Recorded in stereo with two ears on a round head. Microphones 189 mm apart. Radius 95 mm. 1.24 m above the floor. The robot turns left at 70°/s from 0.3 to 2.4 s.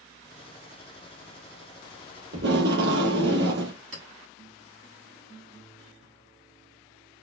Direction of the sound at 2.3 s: 65° right (ahead or behind).